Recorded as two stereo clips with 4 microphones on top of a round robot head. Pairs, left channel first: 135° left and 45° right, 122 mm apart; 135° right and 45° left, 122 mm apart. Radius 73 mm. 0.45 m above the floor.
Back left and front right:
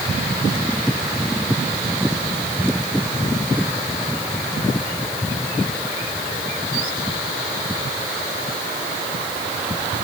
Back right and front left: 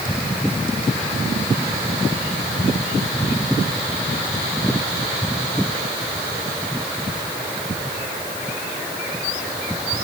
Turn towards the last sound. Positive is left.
No sound to turn to.